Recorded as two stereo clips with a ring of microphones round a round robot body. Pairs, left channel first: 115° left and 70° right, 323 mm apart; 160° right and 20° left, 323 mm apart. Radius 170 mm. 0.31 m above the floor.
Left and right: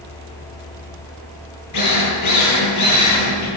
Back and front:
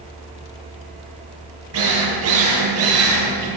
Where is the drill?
70° left, 9.5 m.